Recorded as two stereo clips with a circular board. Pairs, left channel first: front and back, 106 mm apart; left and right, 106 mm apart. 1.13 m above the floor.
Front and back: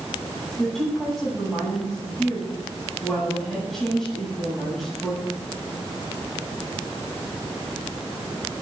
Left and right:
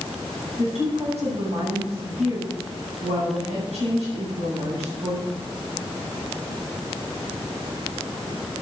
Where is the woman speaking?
90° right, 7.5 m.